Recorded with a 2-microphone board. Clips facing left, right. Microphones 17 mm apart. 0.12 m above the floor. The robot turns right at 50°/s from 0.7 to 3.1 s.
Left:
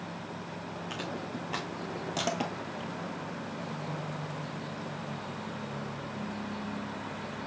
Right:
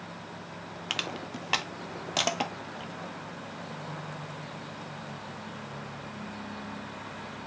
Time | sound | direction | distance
0.9 | crushing | 60° right (ahead or behind) | 1.2 m